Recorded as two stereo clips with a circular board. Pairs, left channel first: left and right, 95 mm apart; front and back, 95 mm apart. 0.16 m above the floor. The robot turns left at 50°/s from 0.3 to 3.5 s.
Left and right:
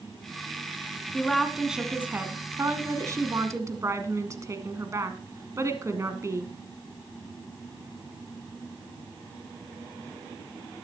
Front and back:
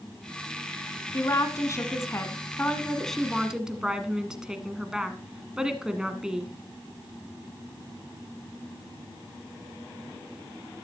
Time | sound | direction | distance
1.1 | a woman speaking | 15° left | 1.4 m